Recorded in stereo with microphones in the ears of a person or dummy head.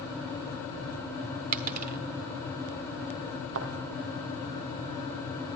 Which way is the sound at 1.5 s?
45° right (ahead or behind).